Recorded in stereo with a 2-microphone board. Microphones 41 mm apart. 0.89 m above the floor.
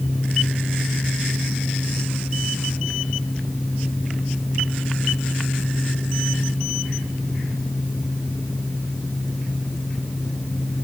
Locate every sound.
Only background noise.